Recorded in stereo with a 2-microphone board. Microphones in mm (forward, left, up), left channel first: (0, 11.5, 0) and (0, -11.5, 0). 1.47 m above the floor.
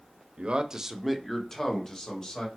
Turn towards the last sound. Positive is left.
turn(degrees=40)  # may be behind; listen again after turning